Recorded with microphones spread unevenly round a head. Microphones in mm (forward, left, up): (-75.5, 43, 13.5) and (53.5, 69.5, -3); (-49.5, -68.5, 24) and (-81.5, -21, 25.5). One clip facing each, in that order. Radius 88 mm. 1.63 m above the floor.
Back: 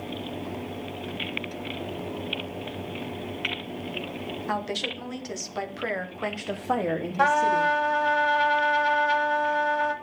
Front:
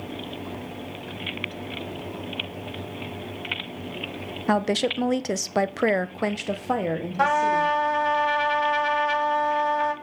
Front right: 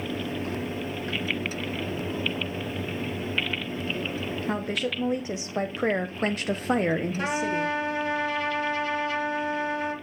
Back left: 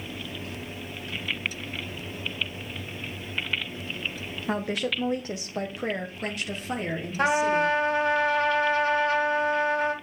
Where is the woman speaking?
40° left, 1.0 m; by 7.8 s 100° right, 1.1 m.